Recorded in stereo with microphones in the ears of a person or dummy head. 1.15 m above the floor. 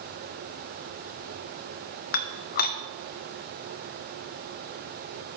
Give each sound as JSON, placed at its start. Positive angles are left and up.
{"t": 2.1, "sound": "dishes clattering", "side_deg": 50, "distance_m": 0.7}